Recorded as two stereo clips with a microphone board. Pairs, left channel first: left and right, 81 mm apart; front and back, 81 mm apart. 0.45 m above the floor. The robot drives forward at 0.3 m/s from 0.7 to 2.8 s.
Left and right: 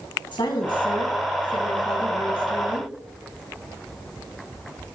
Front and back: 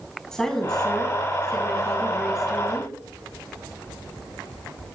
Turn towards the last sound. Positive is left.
turn(degrees=95)